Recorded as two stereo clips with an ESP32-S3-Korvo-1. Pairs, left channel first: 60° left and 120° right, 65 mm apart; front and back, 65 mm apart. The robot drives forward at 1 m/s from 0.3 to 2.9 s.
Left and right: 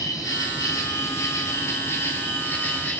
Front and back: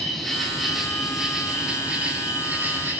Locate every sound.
0.0 s an insect: 90° left, 4.5 m; by 3.0 s 120° left, 5 m